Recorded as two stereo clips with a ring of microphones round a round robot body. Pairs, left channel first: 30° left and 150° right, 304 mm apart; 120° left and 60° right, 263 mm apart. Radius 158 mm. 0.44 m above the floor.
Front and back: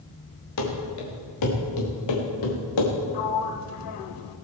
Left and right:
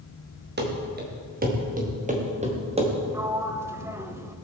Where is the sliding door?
20° left, 1.0 m.